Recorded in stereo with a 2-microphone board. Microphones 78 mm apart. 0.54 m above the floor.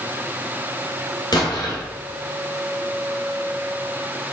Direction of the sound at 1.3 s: 60° left (ahead or behind).